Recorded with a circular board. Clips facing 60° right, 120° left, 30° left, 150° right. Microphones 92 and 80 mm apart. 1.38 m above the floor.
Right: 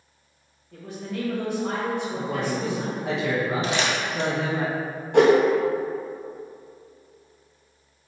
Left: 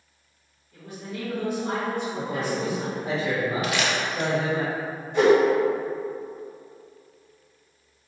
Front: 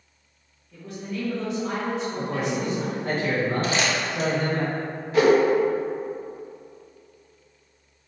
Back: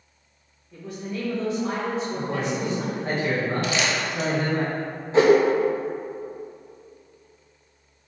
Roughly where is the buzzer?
I don't hear a buzzer.